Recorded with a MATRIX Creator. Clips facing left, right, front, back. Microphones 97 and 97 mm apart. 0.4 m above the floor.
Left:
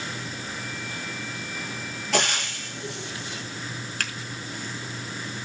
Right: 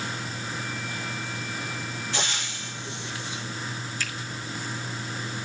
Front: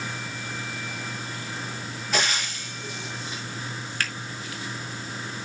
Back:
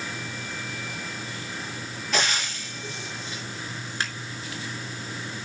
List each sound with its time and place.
2.1 s frying: 85° left, 5.5 m
4.0 s a finger snap: 110° left, 4 m